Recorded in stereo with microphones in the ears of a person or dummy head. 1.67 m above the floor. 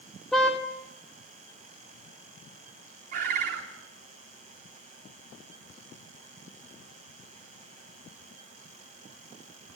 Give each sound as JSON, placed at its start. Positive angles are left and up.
{"t": 0.3, "sound": "a car horn", "side_deg": 0, "distance_m": 2.0}
{"t": 3.1, "sound": "a bird", "side_deg": -55, "distance_m": 3.5}